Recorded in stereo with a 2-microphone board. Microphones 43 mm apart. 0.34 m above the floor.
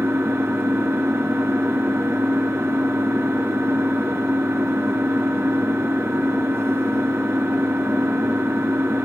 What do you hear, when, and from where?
0.0 s an engine running: 80° right, 2.5 m